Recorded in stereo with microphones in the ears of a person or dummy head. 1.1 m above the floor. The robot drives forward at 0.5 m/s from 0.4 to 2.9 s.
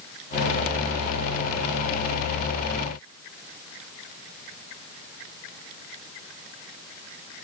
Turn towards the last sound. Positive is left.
No sound to turn to.